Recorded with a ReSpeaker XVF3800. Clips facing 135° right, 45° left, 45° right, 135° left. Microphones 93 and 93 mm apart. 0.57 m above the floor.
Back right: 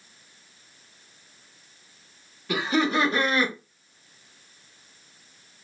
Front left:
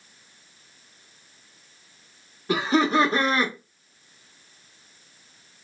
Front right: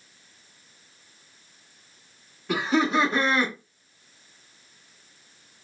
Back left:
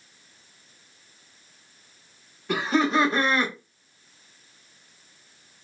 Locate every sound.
2.5 s laughter: 45° left, 1.2 m